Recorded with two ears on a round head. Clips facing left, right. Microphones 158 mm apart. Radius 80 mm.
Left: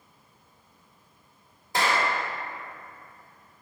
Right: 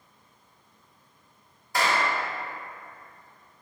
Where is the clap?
20° left (ahead or behind), 1.8 m.